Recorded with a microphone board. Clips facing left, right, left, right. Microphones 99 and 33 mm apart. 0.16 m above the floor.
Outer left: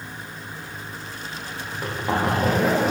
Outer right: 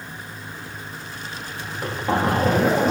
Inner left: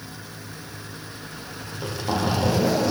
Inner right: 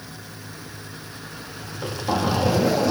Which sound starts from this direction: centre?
A zipper, at 1.6 s.